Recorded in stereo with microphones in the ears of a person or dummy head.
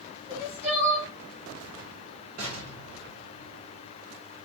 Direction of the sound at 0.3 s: 25° right (ahead or behind).